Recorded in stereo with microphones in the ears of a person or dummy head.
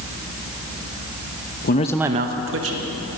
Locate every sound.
1.6 s a man speaking: 45° left (ahead or behind), 0.6 m; by 3.2 s 75° right (ahead or behind), 1.8 m